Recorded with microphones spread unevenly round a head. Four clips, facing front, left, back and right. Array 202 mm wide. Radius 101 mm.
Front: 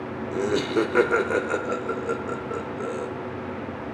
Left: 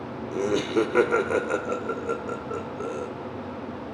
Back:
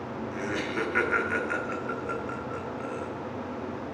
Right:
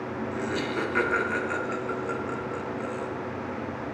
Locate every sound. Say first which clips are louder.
0.3 s laughter: left 8 dB, front 10 dB; 40° left, 0.7 m